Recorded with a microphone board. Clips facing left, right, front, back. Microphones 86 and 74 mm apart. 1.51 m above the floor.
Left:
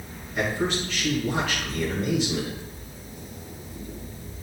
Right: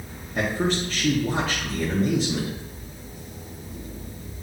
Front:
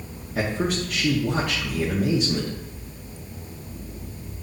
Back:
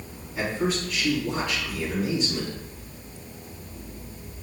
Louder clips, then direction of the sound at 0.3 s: Right 2 dB, front 2 dB; 35° right.